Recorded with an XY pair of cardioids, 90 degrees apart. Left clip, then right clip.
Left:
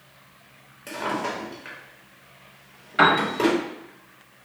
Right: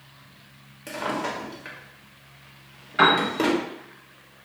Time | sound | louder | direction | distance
0.9 | a drawer | left 1 dB | 15° right | 1.1 m
3.0 | a piano | even | 10° left | 1.0 m